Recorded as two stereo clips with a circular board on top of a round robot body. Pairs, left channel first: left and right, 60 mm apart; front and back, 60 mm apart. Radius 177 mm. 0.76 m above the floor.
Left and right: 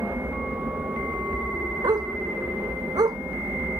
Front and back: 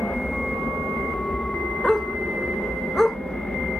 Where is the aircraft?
65° right.